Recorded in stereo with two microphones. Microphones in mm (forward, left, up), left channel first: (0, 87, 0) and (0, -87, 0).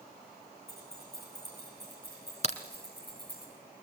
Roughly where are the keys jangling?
Left.